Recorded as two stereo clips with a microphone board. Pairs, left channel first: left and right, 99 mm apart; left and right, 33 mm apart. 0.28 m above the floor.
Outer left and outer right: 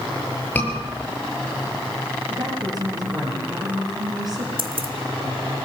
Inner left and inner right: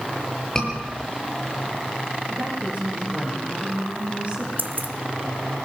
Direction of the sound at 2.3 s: 40° right (ahead or behind).